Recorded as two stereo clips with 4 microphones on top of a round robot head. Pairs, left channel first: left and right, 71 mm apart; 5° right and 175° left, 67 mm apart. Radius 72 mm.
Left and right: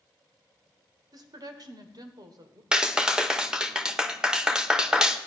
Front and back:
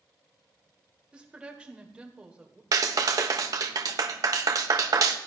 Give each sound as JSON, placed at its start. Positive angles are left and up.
{"t": 1.1, "sound": "a woman speaking", "azimuth_deg": -110, "distance_m": 1.6}
{"t": 2.7, "sound": "a clap", "azimuth_deg": -170, "distance_m": 1.2}